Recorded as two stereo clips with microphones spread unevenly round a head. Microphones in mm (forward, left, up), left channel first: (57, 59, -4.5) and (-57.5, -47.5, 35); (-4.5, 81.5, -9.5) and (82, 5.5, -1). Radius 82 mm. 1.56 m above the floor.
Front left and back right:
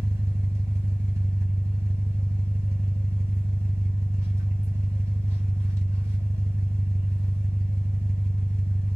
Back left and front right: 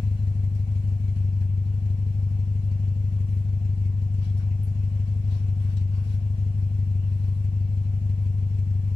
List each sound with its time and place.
0.0 s an engine running: 170° left, 1.7 m